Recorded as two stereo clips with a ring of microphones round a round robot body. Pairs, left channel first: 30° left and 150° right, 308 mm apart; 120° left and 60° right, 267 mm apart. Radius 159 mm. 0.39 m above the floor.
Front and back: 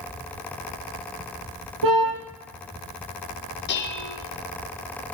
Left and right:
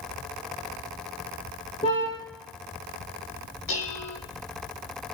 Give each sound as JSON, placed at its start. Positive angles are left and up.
{"t": 1.8, "sound": "a car horn", "azimuth_deg": -165, "distance_m": 7.0}
{"t": 3.7, "sound": "dishes clattering", "azimuth_deg": 85, "distance_m": 5.0}